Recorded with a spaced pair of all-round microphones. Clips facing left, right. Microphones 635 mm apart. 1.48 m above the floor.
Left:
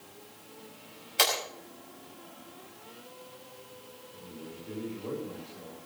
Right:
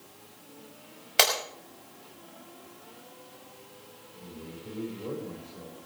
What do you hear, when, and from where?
1.2 s breaking glass: 80° right, 5.5 m
4.1 s a man speaking: 60° right (ahead or behind), 7 m